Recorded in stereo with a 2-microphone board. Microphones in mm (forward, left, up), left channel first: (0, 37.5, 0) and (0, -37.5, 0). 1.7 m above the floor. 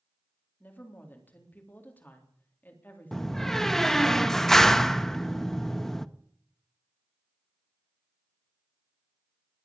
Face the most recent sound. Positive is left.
turn(degrees=5)  # may be behind; listen again after turning